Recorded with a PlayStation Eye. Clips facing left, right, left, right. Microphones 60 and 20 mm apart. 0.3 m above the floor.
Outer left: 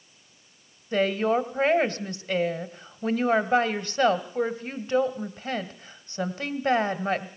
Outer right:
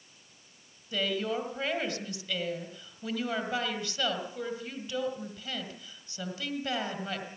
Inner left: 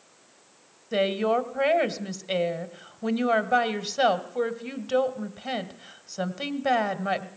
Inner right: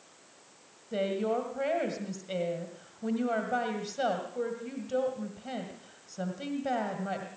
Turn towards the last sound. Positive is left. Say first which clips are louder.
# outer left 8 dB, inner left 6 dB
turn(degrees=45)  # may be behind; listen again after turning